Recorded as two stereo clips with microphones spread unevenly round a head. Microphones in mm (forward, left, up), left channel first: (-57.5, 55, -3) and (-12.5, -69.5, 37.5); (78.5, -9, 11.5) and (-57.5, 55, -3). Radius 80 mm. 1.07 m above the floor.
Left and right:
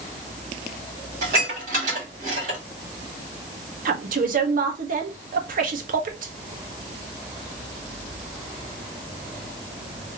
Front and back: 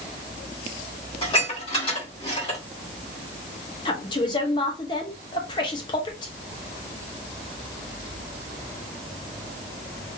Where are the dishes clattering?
85° right, 2 m.